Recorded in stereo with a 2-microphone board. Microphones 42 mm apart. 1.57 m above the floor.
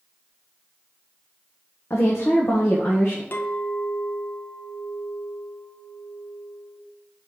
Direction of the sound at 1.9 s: 90° left.